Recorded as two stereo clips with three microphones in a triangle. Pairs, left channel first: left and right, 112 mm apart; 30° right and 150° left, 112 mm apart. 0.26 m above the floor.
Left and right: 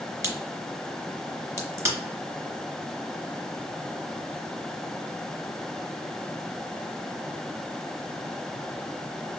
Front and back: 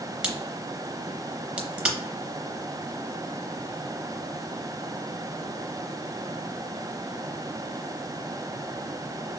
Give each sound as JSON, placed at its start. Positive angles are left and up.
{"t": 0.2, "sound": "a crack", "azimuth_deg": -135, "distance_m": 0.8}